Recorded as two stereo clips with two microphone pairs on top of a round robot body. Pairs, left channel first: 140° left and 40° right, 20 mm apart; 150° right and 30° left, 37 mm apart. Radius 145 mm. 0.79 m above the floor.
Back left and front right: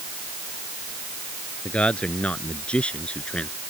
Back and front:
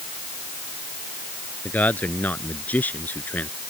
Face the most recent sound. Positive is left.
turn(degrees=165)